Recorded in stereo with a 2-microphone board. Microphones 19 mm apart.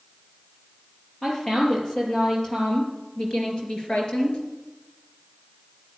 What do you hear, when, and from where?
1.2 s a woman speaking: 35° left (ahead or behind), 5 m; by 4.4 s 55° left (ahead or behind), 3.5 m